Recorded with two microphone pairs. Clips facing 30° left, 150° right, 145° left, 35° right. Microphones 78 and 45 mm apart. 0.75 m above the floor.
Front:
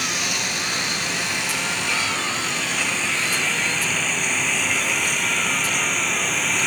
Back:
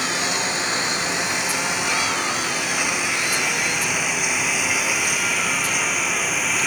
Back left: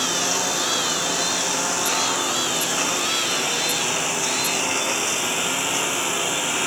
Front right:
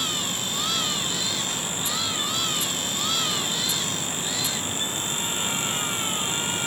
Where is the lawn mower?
145° left; by 6.7 s 125° left.